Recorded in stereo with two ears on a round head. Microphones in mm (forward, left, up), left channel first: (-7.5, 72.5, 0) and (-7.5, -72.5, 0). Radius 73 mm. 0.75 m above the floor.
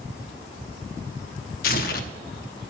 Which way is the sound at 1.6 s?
55° left (ahead or behind).